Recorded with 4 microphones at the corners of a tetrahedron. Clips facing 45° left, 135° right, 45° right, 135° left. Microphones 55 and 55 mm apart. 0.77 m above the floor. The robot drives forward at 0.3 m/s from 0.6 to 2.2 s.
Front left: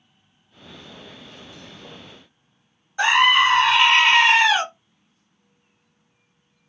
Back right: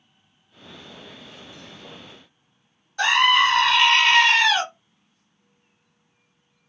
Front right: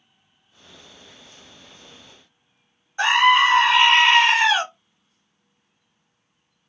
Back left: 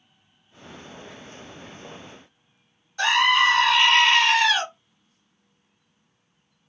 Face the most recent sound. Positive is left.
turn(degrees=-10)